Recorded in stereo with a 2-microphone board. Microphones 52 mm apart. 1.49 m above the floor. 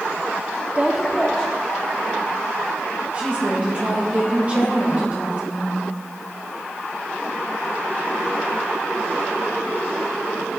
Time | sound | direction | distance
0.8 | a woman speaking | 30° right (ahead or behind) | 0.6 m
3.1 | a woman speaking | 35° right (ahead or behind) | 1.9 m